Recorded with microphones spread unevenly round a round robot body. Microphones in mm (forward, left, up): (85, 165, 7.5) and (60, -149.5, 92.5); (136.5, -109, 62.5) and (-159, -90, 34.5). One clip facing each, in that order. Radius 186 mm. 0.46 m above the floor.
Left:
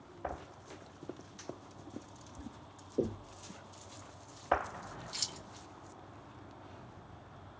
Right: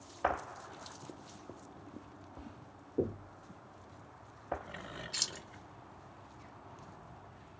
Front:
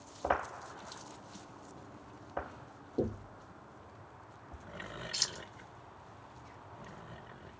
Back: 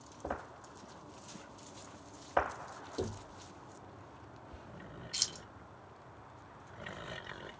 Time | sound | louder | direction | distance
3.0 | knocking | even, front 5 dB | 5° left | 0.9 m
5.1 | keys jangling | right 1 dB, front 3 dB | 100° right | 1.9 m